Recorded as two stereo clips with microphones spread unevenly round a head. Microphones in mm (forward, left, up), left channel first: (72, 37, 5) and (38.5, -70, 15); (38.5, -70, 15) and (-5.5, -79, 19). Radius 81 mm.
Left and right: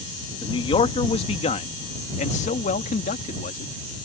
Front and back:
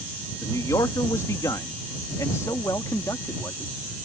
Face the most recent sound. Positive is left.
turn(degrees=75)